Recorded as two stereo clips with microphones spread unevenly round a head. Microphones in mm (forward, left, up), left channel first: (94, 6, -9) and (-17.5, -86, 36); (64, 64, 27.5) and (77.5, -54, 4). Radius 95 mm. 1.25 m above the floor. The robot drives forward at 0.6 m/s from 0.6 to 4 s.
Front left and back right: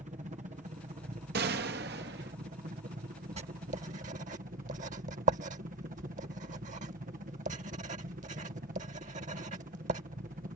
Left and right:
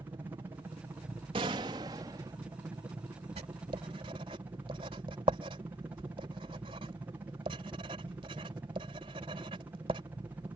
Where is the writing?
140° right; by 10.0 s 150° right.